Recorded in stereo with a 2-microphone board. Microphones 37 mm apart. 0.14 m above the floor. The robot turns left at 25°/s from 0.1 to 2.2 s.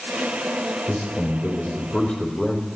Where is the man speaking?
55° left, 4 m; by 2.7 s 20° left, 4 m.